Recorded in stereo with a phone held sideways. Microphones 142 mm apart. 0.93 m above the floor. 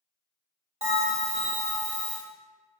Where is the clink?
No clink in this recording.